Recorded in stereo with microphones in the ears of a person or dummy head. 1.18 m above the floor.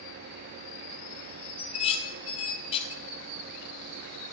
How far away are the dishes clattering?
About 1.5 m.